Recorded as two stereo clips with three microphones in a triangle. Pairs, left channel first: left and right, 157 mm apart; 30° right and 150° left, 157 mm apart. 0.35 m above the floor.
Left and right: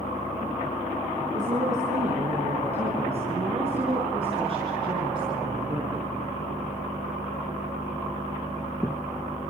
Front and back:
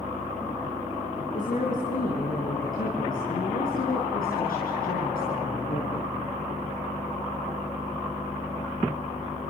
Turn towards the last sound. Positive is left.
turn(degrees=-30)